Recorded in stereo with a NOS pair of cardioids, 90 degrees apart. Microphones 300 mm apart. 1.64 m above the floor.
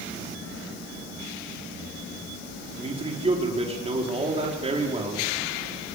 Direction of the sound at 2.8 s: 20° right.